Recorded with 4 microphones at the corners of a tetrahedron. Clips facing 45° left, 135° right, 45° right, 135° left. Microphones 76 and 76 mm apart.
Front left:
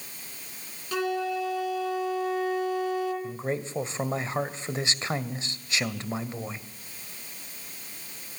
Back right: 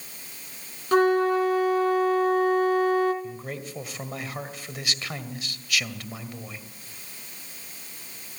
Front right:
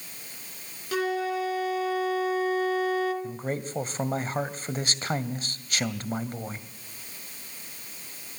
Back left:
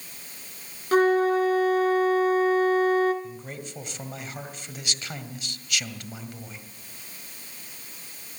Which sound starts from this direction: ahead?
A man speaking, at 3.2 s.